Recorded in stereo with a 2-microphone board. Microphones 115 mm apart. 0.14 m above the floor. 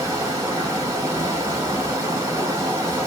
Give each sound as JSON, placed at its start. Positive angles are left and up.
{"t": 0.0, "sound": "running water", "side_deg": -25, "distance_m": 1.3}